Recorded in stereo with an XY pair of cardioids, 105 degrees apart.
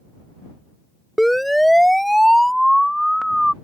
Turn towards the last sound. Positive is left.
turn(degrees=5)